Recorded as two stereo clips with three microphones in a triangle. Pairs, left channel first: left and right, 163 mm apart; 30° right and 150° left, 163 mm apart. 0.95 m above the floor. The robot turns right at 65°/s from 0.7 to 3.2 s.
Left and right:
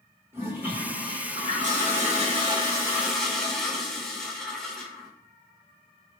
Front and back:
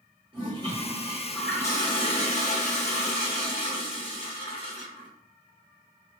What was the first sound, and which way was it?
A toilet flushing, 160° right.